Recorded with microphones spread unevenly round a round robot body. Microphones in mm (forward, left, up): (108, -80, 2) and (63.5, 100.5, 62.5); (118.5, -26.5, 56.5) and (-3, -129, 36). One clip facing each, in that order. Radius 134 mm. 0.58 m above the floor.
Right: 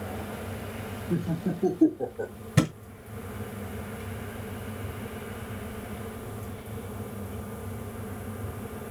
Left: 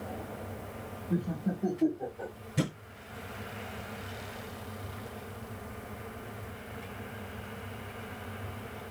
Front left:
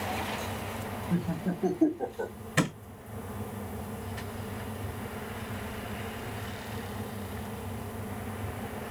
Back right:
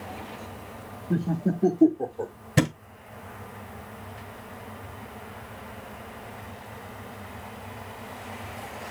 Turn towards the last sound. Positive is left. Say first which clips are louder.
# right 6 dB, back right 5 dB
turn(degrees=-90)